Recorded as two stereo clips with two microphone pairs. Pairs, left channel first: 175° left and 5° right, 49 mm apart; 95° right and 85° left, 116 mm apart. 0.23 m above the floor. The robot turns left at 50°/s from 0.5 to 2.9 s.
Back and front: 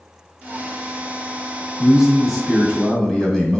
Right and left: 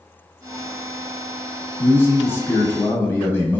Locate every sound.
1.8 s a man speaking: 70° right, 1.1 m; by 3.6 s 125° right, 1.1 m